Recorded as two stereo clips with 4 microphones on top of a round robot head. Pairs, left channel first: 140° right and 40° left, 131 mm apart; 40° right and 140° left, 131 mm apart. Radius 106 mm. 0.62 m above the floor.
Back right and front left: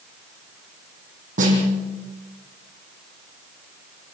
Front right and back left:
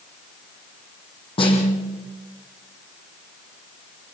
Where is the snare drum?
10° left, 10 m.